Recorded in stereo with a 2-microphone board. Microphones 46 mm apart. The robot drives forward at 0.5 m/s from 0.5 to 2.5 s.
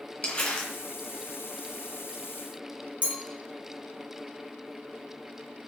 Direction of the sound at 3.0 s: 35° right (ahead or behind).